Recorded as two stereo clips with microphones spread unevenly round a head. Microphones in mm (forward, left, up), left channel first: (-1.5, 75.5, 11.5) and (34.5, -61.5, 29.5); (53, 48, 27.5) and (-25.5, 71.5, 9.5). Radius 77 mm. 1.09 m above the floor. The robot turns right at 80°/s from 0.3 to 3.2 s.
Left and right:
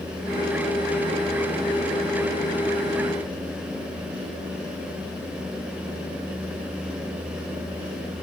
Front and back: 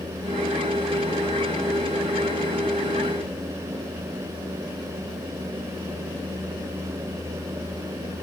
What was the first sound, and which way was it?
Only background noise.